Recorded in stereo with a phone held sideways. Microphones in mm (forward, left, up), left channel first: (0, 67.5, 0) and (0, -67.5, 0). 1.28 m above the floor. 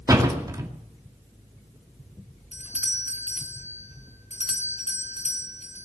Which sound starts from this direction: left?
A doorbell, at 2.5 s.